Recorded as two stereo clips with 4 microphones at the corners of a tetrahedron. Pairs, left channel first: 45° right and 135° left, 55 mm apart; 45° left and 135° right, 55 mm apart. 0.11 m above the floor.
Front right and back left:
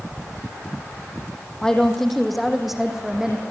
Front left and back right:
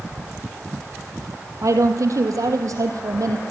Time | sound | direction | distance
1.6 | a woman speaking | 120° right | 4 m